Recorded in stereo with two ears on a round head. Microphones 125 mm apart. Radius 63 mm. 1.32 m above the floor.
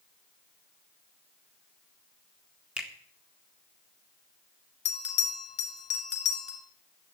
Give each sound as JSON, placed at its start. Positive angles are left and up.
{"t": 2.8, "sound": "a finger snap", "side_deg": -10, "distance_m": 1.7}
{"t": 4.8, "sound": "a bell", "side_deg": 45, "distance_m": 1.7}